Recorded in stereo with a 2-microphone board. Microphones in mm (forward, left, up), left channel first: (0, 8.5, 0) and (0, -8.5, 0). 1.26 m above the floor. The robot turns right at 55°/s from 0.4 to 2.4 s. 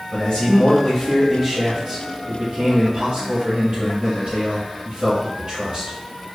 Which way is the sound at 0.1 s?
130° left.